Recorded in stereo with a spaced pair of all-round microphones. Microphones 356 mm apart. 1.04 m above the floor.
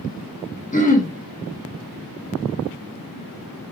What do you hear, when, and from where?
0.7 s throat clearing: 20° left (ahead or behind), 0.8 m